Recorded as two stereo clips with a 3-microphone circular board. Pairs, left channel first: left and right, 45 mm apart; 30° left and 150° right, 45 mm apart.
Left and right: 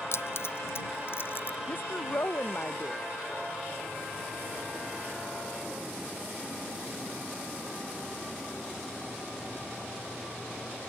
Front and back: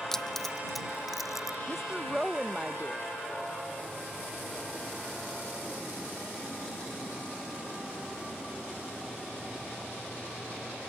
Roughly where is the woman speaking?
Behind left.